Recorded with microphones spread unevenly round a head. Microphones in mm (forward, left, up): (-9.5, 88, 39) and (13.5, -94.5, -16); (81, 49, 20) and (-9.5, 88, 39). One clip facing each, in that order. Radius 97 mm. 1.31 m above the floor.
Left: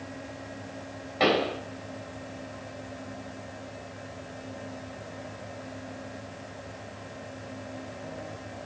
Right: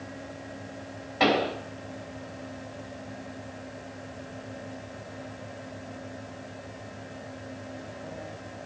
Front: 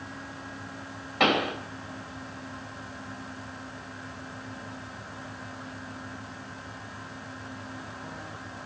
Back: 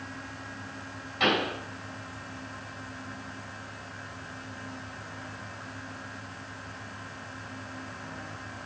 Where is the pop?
5° left, 3 m.